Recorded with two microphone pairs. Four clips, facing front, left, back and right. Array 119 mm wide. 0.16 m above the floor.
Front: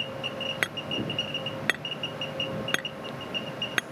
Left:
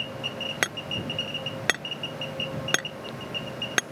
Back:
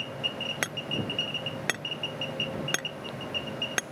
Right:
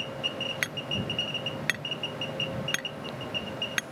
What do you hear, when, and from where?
0.6 s hammering: 100° left